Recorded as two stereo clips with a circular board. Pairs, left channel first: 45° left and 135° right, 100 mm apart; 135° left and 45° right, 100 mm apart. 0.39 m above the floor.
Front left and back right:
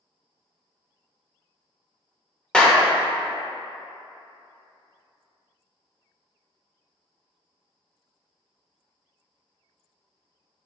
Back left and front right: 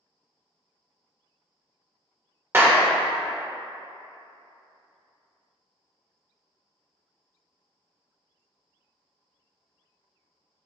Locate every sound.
2.5 s a clap: 25° right, 0.6 m